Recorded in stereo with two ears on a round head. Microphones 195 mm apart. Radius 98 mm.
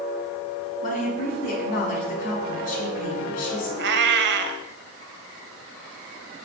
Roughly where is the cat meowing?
Right.